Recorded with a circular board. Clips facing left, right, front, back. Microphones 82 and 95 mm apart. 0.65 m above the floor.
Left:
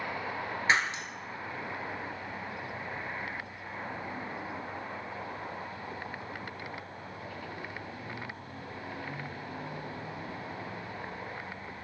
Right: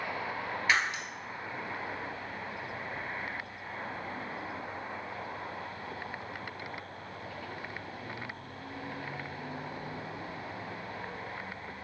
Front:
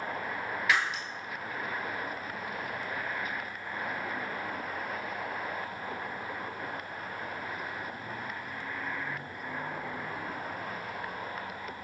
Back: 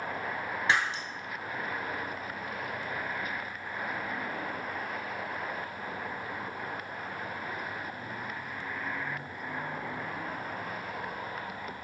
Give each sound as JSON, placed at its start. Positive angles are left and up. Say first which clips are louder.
{"t": 0.7, "sound": "breaking glass", "louder": "left 1 dB, back 1 dB", "azimuth_deg": 135, "distance_m": 0.8}